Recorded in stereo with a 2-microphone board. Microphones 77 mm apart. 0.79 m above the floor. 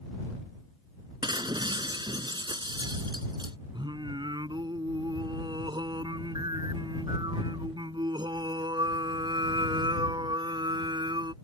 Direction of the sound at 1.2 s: 80° right.